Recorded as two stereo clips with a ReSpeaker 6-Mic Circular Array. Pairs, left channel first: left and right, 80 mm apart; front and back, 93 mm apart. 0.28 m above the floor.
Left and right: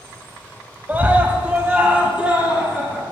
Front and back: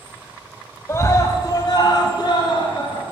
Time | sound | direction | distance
0.9 | a scream | 35° right | 1.2 m